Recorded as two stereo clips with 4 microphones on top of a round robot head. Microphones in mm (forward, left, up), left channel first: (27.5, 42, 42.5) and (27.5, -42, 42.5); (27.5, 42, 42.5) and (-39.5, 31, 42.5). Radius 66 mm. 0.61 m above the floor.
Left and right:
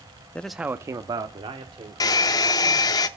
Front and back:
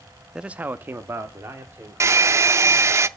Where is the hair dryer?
140° left, 0.5 m.